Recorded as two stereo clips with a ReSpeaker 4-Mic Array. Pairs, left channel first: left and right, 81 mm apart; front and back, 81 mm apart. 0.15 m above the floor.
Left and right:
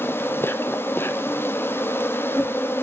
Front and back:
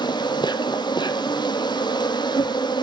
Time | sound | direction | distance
0.0 | an insect | 25° left | 0.8 m